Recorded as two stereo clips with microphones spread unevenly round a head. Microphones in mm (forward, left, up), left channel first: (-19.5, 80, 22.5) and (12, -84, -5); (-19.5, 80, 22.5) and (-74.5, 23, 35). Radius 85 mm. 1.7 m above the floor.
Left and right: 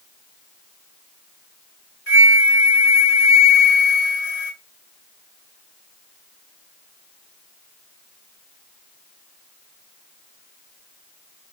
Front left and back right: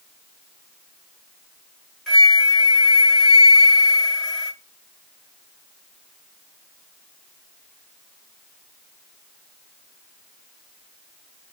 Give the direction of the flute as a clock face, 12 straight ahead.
8 o'clock.